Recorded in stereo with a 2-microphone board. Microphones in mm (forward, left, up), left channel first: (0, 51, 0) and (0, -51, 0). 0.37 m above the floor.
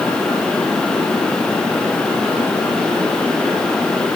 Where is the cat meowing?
No cat meowing in this recording.